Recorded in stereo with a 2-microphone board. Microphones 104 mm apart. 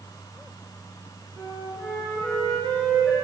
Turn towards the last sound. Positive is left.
turn(degrees=15)  # may be behind; listen again after turning